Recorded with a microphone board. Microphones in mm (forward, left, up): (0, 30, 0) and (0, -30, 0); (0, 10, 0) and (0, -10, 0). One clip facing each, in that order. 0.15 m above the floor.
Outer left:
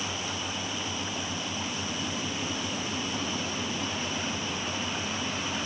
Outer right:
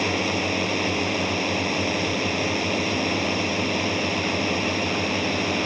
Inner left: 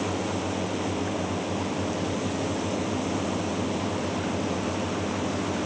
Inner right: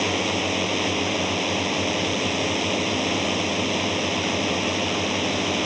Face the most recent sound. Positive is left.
turn(degrees=-65)  # may be behind; listen again after turning